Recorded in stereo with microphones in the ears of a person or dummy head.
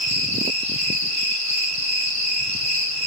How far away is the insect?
About 4.5 m.